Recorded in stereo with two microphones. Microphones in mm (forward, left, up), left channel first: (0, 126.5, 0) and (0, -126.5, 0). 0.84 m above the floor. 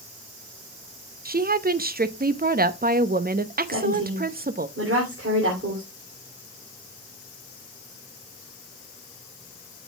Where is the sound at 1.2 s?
35° right (ahead or behind), 0.7 m.